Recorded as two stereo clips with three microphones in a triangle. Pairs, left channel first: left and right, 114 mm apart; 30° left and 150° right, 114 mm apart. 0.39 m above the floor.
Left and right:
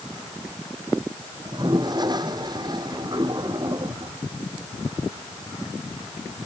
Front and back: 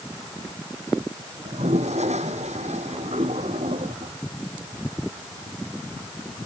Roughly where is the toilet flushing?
Behind right.